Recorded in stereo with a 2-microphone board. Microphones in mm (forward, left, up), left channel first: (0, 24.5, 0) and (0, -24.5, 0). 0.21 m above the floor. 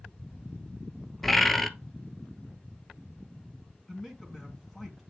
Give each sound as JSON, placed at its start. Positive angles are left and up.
{"t": 1.2, "sound": "a bird", "side_deg": 5, "distance_m": 0.8}
{"t": 3.9, "sound": "a man speaking", "side_deg": 5, "distance_m": 2.5}